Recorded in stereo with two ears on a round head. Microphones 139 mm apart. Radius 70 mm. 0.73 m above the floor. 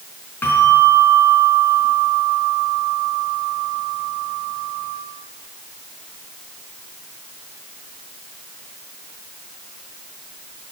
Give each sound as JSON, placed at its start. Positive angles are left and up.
{"t": 0.4, "sound": "a bell", "side_deg": 10, "distance_m": 4.0}